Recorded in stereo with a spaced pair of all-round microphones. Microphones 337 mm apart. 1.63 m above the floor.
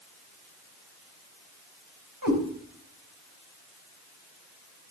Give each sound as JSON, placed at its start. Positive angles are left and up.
{"t": 2.2, "sound": "a cat meowing", "side_deg": -70, "distance_m": 4.0}